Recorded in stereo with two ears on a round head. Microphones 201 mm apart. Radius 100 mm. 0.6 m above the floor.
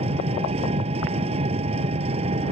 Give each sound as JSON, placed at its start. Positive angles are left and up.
{"t": 0.0, "sound": "an engine running", "side_deg": -30}